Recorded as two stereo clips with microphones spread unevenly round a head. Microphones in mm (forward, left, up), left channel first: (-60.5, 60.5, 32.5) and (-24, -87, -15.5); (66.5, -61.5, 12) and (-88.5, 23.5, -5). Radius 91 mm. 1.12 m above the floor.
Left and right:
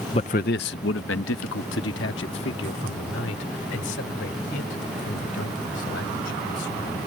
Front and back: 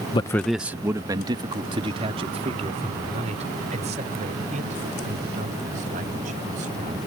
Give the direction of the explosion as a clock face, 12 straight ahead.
I don't hear an explosion.